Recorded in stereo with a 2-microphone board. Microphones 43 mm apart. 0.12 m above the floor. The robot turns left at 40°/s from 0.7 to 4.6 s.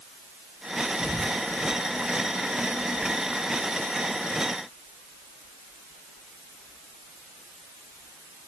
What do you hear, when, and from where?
1.0 s whispering: centre (ahead or behind), 2 m; by 1.4 s 10° right (ahead or behind), 2 m